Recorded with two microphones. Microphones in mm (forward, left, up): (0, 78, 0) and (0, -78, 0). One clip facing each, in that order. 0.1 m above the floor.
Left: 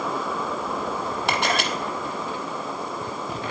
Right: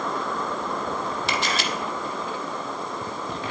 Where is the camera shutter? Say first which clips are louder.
Left 6 dB; 60° left (ahead or behind), 1.0 m.